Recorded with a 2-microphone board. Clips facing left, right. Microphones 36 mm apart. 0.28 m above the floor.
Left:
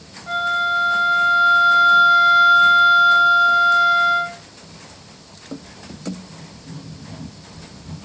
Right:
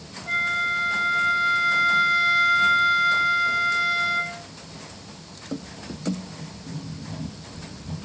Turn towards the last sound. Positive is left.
turn(degrees=-5)  # may be behind; listen again after turning